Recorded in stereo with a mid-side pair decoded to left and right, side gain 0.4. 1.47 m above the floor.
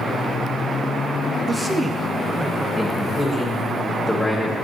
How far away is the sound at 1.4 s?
About 0.9 m.